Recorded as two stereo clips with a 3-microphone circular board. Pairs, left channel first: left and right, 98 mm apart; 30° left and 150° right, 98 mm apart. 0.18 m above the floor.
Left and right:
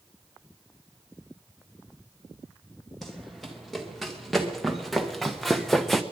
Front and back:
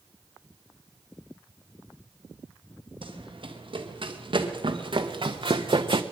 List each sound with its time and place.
3.0 s running footsteps: straight behind, 3 m